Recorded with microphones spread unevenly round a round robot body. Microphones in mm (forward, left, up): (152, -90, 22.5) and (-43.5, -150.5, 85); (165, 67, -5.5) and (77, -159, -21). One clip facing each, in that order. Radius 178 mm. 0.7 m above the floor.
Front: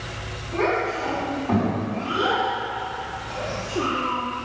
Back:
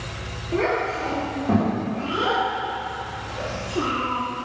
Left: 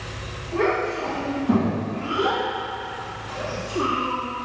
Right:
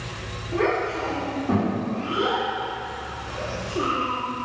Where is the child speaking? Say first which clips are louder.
Even, left 1 dB; 160° left, 1.7 m; by 4.2 s 135° left, 5 m.